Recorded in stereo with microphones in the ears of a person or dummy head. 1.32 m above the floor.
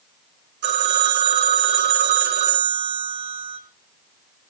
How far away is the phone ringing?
About 4 m.